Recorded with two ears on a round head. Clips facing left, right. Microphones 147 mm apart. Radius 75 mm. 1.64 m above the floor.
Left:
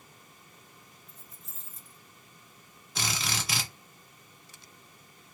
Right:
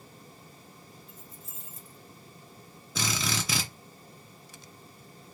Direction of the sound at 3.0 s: 80° right.